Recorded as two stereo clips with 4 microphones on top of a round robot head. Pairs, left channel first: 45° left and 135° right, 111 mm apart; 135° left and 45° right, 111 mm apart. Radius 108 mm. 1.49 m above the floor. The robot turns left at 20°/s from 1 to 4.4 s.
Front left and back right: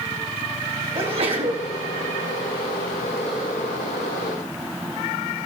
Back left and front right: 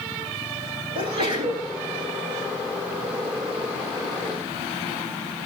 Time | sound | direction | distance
0.9 | a sneeze | 90° right | 10 m